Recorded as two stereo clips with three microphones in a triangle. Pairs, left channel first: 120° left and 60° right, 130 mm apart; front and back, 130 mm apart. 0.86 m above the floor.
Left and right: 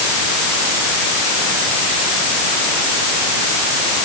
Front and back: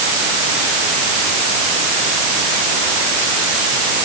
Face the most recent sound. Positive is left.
No sound to turn to.